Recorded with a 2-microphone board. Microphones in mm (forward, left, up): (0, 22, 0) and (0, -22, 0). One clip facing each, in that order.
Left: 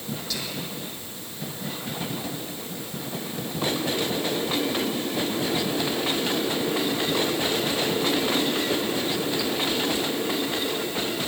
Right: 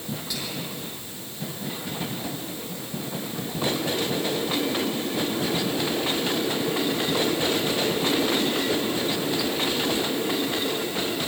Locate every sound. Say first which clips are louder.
0.3 s whispering: even; 15° right (ahead or behind), 4.5 m